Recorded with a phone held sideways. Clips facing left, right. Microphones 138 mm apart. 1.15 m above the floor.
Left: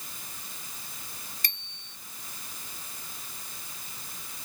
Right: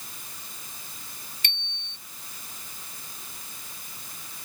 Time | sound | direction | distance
1.4 | a bicycle bell | 40° left (ahead or behind) | ?